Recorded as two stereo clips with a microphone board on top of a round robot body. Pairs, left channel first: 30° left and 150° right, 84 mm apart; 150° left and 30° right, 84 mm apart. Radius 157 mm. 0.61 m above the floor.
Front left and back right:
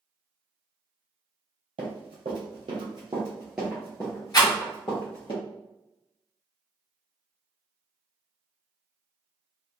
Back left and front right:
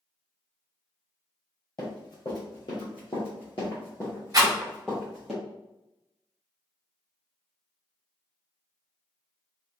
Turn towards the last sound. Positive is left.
turn(degrees=5)